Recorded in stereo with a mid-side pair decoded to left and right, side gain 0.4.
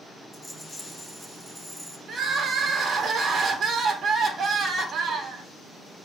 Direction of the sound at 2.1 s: 65° right.